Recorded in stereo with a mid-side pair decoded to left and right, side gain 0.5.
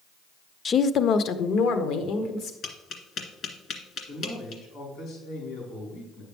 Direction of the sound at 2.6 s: 55° left.